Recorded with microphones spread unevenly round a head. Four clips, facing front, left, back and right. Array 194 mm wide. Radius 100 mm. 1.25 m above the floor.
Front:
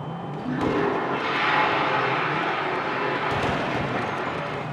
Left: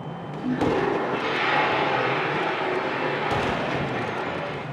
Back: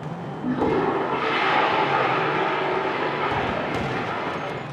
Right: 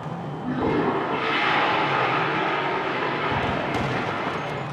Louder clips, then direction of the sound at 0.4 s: Even, back 2 dB; 160° left.